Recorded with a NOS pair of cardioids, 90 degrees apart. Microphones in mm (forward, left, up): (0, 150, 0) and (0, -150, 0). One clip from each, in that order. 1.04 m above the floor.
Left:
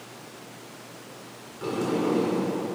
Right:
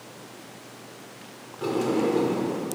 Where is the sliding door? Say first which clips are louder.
Right 2 dB; 25° right, 1.9 m.